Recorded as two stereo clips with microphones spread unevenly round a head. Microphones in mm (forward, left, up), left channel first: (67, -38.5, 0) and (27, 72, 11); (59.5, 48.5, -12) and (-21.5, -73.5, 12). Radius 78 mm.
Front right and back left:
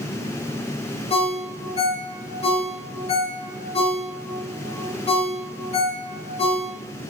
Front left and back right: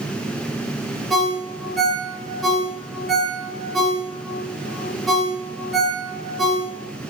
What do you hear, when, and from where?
1.1 s a ringtone: 35° right, 2.5 m